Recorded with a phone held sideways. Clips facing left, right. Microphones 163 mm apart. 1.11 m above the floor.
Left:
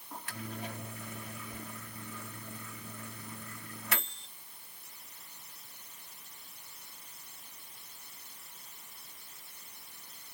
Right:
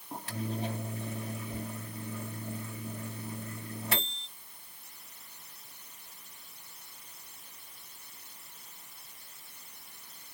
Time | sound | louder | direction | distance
0.1 | a microwave | right 6 dB | 30° right (ahead or behind) | ?